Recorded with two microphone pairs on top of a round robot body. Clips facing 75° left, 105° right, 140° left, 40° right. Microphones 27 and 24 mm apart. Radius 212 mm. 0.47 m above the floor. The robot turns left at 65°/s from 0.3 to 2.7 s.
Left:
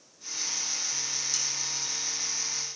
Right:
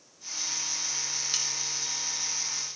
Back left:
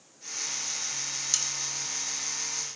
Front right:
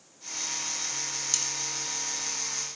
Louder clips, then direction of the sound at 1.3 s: Right 2 dB, back left 1 dB; 145° right.